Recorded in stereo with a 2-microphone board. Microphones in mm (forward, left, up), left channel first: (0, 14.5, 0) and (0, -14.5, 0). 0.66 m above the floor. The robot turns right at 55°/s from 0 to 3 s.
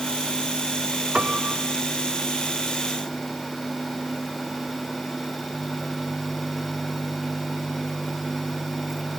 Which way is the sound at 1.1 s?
40° right (ahead or behind).